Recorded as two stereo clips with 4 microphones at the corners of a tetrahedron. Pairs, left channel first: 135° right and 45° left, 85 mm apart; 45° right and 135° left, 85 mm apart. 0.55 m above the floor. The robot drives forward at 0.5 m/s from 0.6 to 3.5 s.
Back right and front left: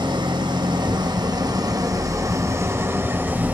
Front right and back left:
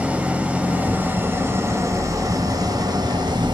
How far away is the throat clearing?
No throat clearing in this recording.